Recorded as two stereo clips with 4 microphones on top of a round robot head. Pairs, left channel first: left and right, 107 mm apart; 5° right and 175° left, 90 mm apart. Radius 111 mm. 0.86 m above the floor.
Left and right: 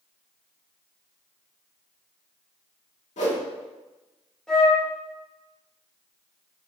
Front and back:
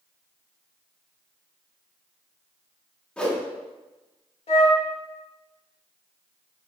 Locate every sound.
3.2 s a whoosh: 80° left, 2.5 m
4.5 s a flute: 5° left, 1.9 m